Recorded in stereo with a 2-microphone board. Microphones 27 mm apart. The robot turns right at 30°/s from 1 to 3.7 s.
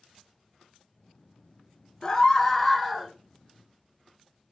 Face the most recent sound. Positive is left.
turn(degrees=-160)